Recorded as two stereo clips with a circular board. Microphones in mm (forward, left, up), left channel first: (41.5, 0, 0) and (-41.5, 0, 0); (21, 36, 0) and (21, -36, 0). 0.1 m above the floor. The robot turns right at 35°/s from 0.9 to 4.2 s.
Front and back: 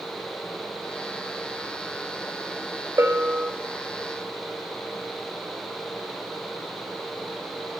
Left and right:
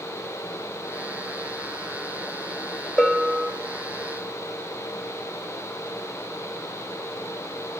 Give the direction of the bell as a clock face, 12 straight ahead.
6 o'clock.